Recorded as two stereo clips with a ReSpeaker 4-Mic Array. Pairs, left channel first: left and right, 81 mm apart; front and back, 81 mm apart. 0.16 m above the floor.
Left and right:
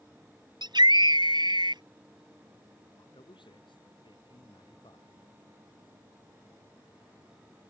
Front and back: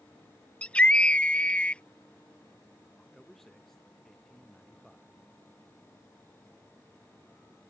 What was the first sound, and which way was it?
A scream, 75° right.